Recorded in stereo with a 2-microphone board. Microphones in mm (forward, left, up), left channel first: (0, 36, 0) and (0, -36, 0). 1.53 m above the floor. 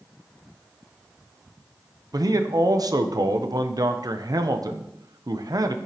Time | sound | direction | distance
2.1 | a man speaking | 60° right (ahead or behind) | 0.7 m